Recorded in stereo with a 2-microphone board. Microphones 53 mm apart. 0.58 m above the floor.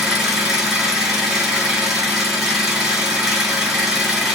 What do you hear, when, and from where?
0.0 s an engine running: 10° right (ahead or behind), 1.5 m